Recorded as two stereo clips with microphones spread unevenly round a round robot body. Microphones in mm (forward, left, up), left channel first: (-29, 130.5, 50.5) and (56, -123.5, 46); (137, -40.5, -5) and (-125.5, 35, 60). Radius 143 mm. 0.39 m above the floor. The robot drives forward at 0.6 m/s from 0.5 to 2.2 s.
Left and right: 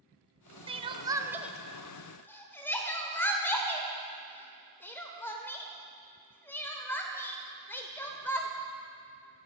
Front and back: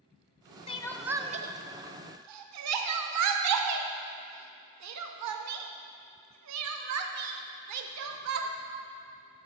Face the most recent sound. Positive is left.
turn(degrees=-170)